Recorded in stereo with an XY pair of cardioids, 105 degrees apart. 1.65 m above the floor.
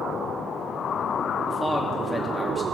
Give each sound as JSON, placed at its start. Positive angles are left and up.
{"t": 1.5, "sound": "a man speaking", "azimuth_deg": 0, "distance_m": 2.5}